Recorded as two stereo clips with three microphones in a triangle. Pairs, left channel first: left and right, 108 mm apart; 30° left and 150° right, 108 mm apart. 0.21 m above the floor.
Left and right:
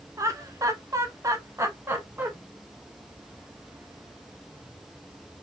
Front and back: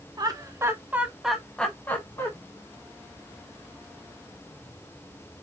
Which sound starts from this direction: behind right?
Laughter, at 0.2 s.